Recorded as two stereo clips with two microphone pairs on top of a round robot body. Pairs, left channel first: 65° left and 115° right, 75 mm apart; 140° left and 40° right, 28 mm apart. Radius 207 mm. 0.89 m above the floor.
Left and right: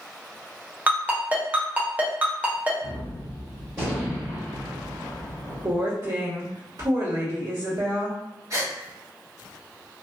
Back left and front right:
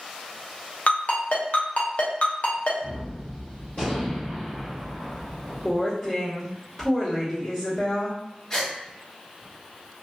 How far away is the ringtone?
About 0.6 m.